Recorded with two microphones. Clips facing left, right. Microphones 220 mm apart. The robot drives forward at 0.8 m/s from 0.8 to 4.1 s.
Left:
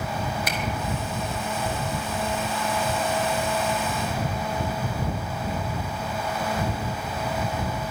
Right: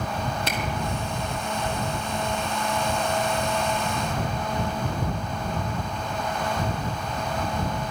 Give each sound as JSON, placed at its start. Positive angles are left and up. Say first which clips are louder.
{"t": 0.5, "sound": "a camera shutter", "louder": "right 1 dB", "side_deg": -25, "distance_m": 2.0}